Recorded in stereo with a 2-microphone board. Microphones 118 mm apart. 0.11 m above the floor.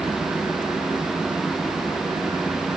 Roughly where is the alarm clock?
I don't hear an alarm clock.